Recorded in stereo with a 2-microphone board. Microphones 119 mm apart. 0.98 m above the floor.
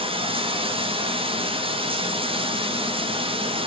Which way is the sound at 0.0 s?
50° right (ahead or behind).